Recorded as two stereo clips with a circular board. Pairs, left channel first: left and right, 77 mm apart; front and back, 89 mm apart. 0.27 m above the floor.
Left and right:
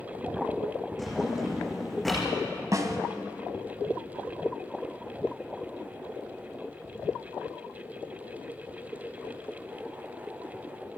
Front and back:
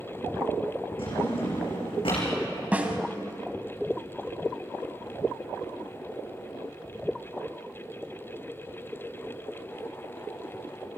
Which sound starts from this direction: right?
A snare drum, at 2.7 s.